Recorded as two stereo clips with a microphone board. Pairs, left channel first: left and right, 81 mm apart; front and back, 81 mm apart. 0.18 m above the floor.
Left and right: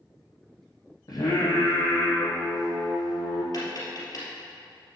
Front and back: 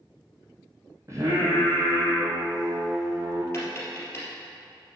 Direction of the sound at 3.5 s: 55° left.